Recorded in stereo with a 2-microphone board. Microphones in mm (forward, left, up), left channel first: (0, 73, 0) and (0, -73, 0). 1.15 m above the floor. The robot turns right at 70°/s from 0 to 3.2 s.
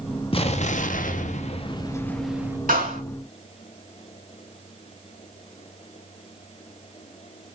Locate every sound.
0.3 s an explosion: 45° left, 0.6 m; by 2.6 s 160° right, 0.6 m
2.7 s a clap: 70° right (ahead or behind), 2.5 m; by 3.0 s 45° right (ahead or behind), 2.5 m